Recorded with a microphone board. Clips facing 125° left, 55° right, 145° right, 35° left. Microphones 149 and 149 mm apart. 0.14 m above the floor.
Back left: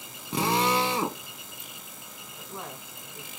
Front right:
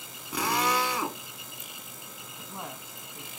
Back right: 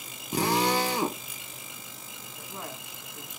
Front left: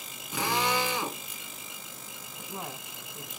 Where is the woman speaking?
Straight ahead, 1.1 m.